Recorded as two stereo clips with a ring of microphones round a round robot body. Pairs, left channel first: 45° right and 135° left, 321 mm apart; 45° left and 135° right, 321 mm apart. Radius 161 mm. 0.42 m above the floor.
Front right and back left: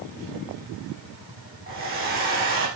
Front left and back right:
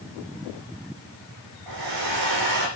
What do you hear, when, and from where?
1.7 s a hair dryer: 160° right, 7.5 m